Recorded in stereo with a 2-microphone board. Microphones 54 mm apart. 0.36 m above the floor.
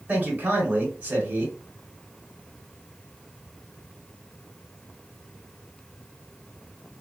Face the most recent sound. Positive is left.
turn(degrees=-30)  # may be behind; listen again after turning